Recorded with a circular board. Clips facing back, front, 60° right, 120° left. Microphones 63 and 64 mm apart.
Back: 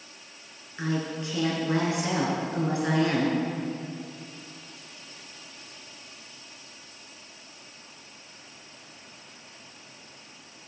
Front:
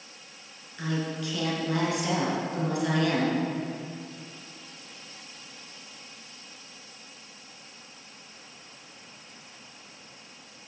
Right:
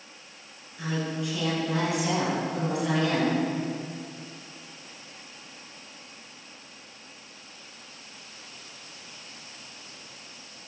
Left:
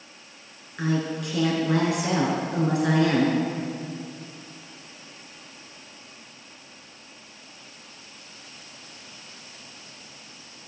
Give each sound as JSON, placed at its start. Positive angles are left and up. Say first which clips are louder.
{"t": 0.8, "sound": "a woman speaking", "louder": "back 1 dB, left 4 dB", "azimuth_deg": 120, "distance_m": 3.0}